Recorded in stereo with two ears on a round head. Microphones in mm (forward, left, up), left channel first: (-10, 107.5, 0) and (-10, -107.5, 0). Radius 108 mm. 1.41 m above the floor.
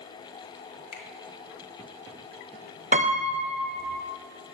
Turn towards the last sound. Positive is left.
turn(degrees=-30)  # may be behind; listen again after turning